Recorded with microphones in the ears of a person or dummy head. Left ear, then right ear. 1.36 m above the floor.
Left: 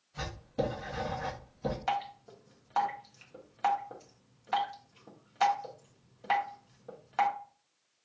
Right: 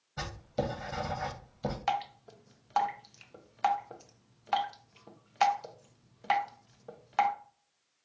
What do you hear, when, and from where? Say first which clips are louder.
0.2 s writing: even; 70° right (ahead or behind), 1.1 m
1.9 s dripping: right 2 dB; 10° right (ahead or behind), 0.5 m